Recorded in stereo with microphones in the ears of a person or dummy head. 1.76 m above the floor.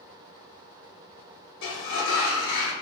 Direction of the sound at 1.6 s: 75° left (ahead or behind).